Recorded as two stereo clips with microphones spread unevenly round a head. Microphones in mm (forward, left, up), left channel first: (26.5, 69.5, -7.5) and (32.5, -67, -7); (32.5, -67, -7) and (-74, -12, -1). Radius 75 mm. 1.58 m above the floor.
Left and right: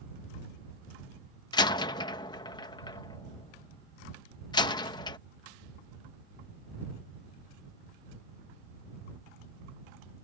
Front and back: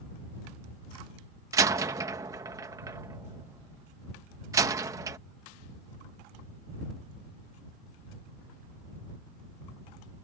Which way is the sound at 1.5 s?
120° left.